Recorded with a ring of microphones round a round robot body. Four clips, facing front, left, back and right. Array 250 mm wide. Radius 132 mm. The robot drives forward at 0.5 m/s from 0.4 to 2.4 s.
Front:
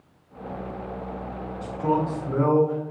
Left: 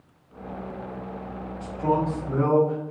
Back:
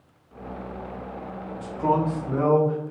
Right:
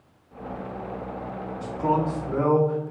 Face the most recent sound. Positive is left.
turn(degrees=170)